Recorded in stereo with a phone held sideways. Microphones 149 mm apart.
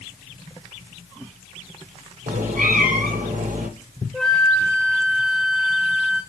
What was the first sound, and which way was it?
A cat meowing, 75° right (ahead or behind).